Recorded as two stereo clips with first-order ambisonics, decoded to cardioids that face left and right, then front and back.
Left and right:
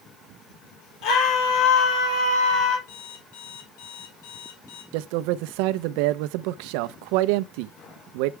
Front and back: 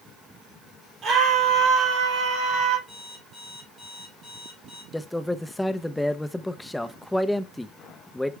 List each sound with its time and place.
1.0 s a scream: 115° left, 4 m; by 2.8 s 130° left, 3 m
2.9 s an alarm clock: 100° left, 4 m
4.9 s a man speaking: 85° right, 0.6 m